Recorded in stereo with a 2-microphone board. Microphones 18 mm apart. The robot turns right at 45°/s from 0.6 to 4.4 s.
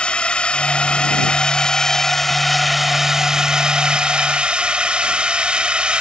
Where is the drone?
90° left; by 6.0 s 100° right.